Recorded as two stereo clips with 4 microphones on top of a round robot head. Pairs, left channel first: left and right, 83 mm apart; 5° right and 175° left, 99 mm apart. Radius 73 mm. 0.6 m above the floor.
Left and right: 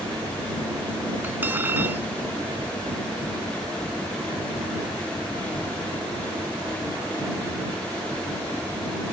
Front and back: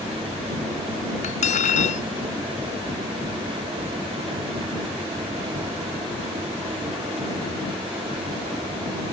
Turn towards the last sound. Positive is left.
turn(degrees=-15)